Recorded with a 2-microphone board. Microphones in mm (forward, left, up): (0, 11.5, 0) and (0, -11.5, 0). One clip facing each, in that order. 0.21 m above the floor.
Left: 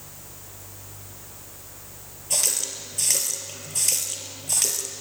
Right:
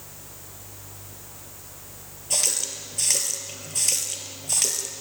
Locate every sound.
2.3 s a running tap: 10° right (ahead or behind), 3 m